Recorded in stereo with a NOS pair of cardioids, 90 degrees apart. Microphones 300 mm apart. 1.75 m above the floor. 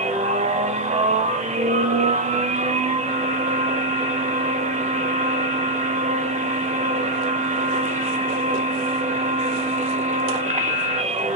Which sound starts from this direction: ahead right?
A machine running, at 0.0 s.